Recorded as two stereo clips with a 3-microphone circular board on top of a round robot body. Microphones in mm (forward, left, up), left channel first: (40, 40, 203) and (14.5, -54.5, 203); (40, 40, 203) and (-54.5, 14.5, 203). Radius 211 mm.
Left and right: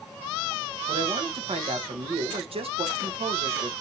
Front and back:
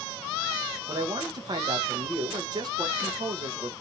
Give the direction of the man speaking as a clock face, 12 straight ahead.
4 o'clock.